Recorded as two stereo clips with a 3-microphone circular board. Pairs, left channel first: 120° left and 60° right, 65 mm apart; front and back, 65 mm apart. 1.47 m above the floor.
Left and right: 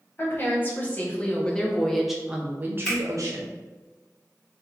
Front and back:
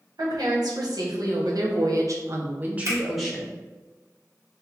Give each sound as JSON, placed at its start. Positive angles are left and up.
{"t": 0.2, "sound": "a woman speaking", "azimuth_deg": 175, "distance_m": 1.6}
{"t": 2.9, "sound": "a finger snap", "azimuth_deg": -165, "distance_m": 1.8}